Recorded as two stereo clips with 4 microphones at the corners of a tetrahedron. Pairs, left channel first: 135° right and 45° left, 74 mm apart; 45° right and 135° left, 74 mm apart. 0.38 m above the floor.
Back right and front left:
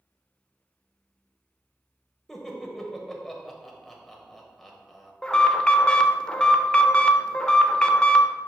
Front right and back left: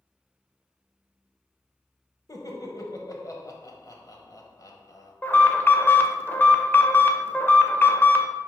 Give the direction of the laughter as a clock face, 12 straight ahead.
2 o'clock.